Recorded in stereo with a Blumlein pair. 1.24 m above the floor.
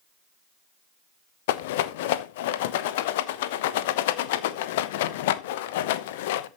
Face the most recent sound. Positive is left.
turn(degrees=50)